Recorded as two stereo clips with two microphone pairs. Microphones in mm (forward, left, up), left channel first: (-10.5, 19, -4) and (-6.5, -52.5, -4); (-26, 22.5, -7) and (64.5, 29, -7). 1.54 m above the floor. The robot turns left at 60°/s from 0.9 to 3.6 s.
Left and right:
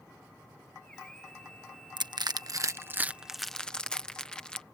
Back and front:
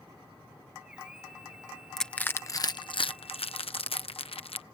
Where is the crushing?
90° right; by 4.6 s 170° left.